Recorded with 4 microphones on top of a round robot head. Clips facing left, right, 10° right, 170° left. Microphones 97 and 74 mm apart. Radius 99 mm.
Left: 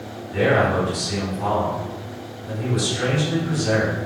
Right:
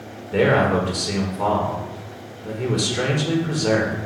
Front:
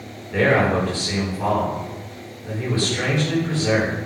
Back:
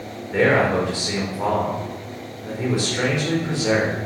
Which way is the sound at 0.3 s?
115° right.